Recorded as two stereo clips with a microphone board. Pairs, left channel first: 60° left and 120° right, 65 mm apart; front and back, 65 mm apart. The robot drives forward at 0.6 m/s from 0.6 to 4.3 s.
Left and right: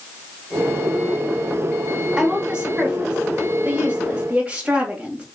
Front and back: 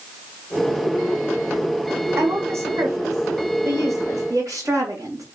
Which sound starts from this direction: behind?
A woman speaking, at 2.2 s.